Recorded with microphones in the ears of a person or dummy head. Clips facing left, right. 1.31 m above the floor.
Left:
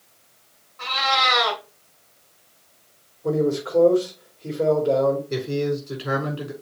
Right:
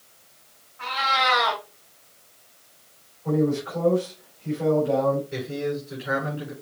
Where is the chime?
I don't hear a chime.